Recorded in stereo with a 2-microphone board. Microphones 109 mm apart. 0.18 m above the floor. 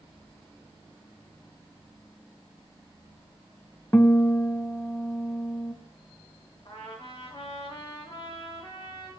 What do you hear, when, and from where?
3.9 s a guitar: 20° left (ahead or behind), 0.7 m
6.7 s a trumpet: 45° left (ahead or behind), 4 m